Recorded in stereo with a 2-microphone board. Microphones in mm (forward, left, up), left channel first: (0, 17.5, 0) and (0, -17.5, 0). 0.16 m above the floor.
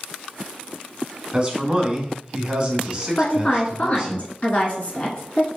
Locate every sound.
1.3 s a man speaking: 20° right (ahead or behind), 1.2 m
3.2 s a woman speaking: 40° left (ahead or behind), 1.4 m